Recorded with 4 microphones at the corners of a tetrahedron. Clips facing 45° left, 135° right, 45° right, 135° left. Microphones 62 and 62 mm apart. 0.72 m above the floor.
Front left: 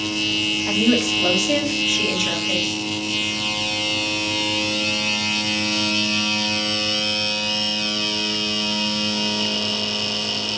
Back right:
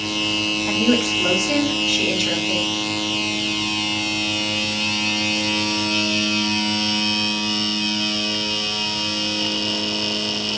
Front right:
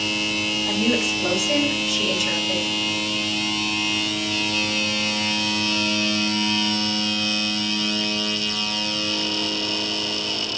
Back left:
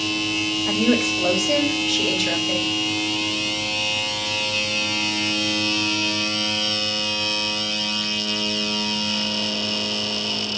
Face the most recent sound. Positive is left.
turn(degrees=125)